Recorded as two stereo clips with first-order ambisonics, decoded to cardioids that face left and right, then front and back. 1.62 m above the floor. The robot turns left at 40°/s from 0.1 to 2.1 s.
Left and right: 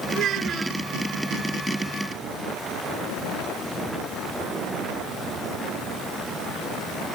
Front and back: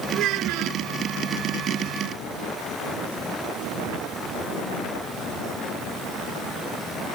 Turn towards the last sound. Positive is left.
turn(degrees=145)